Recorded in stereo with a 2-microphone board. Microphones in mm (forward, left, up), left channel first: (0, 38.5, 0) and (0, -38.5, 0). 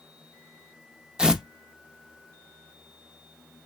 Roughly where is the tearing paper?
Centre.